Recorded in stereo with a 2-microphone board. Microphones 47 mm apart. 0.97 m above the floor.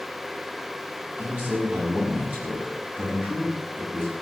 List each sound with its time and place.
1.2 s a man speaking: 40° right (ahead or behind), 7 m